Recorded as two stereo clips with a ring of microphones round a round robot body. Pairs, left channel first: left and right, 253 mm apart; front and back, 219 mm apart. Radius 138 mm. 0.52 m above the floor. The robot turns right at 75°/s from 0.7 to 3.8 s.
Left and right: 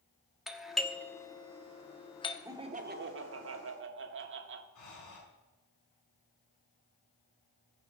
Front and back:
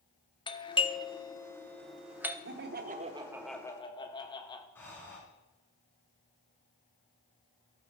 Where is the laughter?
170° right, 1.3 m; by 4.7 s 65° right, 1.3 m.